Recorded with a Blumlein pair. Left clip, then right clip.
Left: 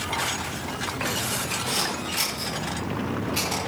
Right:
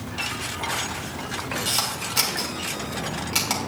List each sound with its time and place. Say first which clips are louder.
1.6 s a camera shutter: right 1 dB; 45° right, 6.5 m